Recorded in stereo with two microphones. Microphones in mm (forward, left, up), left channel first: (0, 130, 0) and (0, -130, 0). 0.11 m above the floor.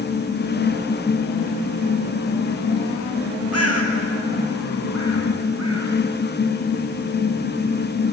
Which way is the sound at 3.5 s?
65° left (ahead or behind).